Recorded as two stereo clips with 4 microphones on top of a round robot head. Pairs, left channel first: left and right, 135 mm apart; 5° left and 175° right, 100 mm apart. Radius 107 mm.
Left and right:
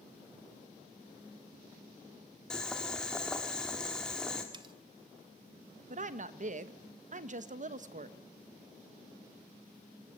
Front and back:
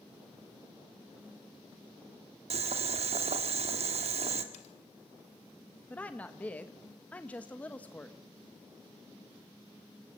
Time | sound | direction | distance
2.5 | boiling | 175° left | 1.8 m
4.5 | cutlery clinking | 35° right | 0.9 m
5.9 | a woman speaking | 75° right | 1.3 m